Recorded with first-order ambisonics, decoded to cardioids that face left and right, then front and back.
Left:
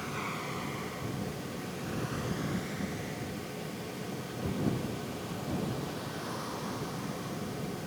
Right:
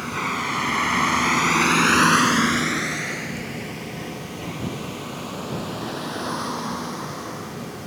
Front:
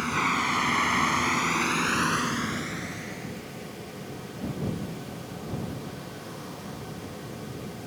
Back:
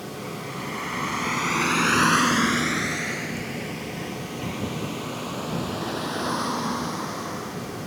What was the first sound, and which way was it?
A vehicle, 30° right.